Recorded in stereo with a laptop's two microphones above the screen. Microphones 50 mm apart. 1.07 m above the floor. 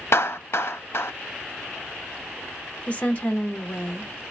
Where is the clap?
60° left (ahead or behind), 0.5 m.